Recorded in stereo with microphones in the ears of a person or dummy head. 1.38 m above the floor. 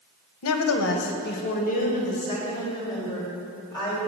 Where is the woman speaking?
75° left (ahead or behind), 0.7 m; by 4.0 s 20° left (ahead or behind), 2.5 m.